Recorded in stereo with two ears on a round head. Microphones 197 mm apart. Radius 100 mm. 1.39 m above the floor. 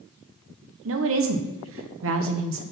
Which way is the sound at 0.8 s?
65° right (ahead or behind).